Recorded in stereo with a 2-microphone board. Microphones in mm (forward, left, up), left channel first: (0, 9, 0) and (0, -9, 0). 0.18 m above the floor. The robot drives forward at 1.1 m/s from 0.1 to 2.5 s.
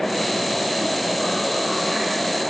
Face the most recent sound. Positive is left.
No sound to turn to.